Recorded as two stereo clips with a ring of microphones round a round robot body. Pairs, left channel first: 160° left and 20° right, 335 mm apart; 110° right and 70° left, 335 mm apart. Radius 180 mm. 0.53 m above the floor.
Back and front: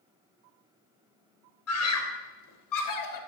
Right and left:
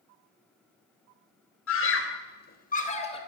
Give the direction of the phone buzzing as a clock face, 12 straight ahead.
No phone buzzing in this recording.